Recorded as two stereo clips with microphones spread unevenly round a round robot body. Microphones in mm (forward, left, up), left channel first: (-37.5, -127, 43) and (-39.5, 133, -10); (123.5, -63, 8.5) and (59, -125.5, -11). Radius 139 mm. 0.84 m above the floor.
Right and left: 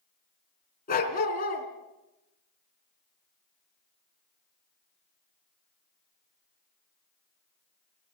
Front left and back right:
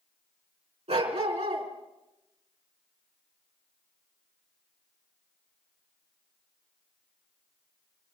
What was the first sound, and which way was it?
A dog barking, 145° right.